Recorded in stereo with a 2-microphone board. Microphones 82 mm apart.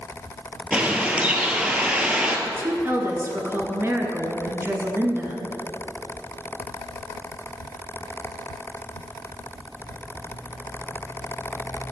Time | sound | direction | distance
0.7 | a bird | 15° right (ahead or behind) | 1.2 m
2.5 | a woman speaking | 30° right (ahead or behind) | 1.5 m